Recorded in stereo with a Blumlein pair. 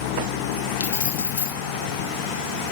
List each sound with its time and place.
0.8 s keys jangling: 65° left, 3 m